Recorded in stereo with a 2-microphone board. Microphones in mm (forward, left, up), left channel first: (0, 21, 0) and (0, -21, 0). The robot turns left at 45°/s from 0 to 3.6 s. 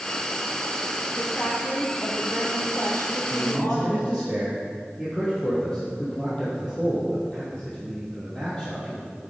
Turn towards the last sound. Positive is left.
turn(degrees=25)  # may be behind; listen again after turning